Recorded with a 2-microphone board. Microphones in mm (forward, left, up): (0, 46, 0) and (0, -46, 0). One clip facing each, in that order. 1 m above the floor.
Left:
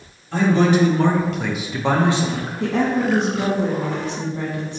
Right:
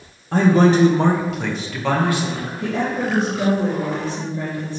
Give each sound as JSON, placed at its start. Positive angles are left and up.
{"t": 0.3, "sound": "a man speaking", "side_deg": -50, "distance_m": 0.6}
{"t": 2.6, "sound": "a woman speaking", "side_deg": 80, "distance_m": 1.2}